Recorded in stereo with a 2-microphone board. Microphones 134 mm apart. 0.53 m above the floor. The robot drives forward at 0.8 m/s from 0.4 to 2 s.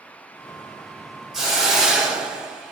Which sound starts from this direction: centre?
A hiss, at 1.3 s.